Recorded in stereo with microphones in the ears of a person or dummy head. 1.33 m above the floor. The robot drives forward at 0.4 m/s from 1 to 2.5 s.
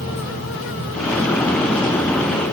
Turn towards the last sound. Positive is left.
No sound to turn to.